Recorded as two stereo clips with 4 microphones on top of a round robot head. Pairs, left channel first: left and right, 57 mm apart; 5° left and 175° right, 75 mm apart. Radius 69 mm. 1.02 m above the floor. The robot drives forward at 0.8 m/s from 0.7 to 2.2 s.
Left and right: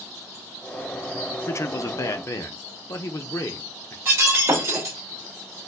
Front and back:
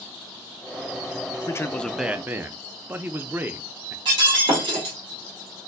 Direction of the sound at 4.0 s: 150° right.